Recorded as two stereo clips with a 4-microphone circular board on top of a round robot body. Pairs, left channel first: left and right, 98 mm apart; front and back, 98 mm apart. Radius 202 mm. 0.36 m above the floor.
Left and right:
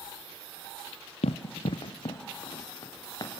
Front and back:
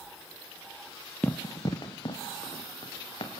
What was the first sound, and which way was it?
Running footsteps, 75° left.